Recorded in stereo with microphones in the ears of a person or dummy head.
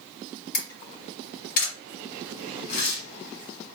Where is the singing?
No singing in this recording.